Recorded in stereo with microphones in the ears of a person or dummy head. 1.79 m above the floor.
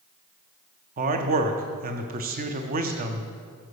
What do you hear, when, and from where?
1.0 s a man speaking: 40° right (ahead or behind), 0.8 m